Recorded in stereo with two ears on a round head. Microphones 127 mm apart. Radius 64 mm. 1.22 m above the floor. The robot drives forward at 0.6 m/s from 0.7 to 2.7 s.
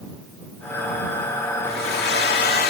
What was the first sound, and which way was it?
A hair dryer, 80° left.